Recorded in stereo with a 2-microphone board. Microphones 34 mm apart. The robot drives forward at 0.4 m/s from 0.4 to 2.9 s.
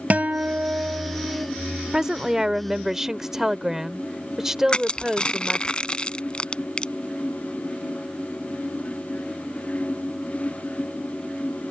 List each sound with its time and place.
0.1 s a guitar: 45° right (ahead or behind); by 1.5 s 70° right (ahead or behind)
1.9 s a woman speaking: 15° right (ahead or behind)
4.7 s crushing: 25° left (ahead or behind)